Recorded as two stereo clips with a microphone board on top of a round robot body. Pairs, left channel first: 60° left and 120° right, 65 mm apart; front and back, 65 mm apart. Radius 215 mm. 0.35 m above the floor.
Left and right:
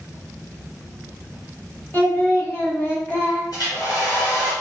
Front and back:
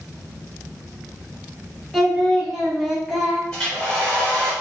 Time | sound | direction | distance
1.9 | singing | 95° left | 1.5 m
3.5 | a hair dryer | 80° left | 1.6 m